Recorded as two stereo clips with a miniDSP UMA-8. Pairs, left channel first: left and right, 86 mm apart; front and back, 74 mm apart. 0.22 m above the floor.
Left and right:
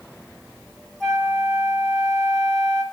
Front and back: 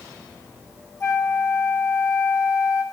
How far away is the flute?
About 1.2 m.